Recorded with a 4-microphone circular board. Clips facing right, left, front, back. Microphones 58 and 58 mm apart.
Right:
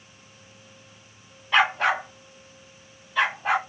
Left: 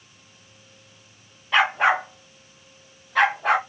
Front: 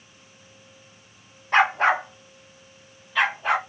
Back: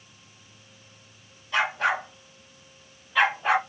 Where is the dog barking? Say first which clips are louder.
Left 2 dB, front 6 dB; straight ahead, 0.7 m; by 3.6 s 100° left, 1.6 m.